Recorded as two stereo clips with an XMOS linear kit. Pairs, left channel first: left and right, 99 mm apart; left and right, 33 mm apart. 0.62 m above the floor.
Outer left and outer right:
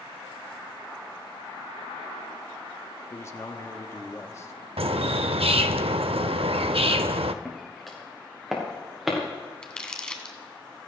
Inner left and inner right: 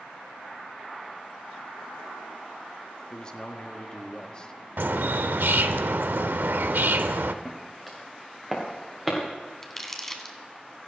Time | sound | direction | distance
3.1 | a man speaking | 30° left (ahead or behind) | 1.0 m
4.8 | a bird | 80° right | 0.6 m
7.5 | footsteps | 5° left (ahead or behind) | 3 m
9.6 | crumpling | 10° left (ahead or behind) | 1.5 m